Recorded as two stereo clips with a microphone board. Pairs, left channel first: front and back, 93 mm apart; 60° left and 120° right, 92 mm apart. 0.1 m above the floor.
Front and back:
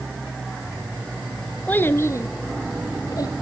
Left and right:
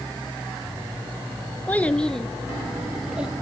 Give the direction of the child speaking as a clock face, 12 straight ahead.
11 o'clock.